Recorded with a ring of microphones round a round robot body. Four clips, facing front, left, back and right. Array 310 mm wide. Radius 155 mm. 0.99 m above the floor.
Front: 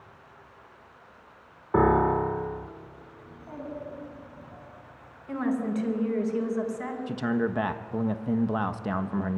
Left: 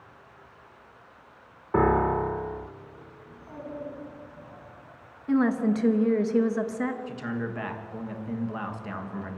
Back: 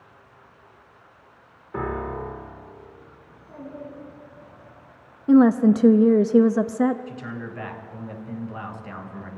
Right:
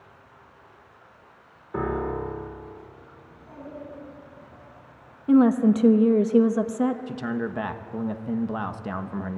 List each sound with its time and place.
1.7 s a piano: 35° left, 0.9 m
3.2 s a child speaking: 10° left, 7 m
5.3 s a woman speaking: 160° right, 1.0 m
7.1 s a man speaking: 30° right, 1.3 m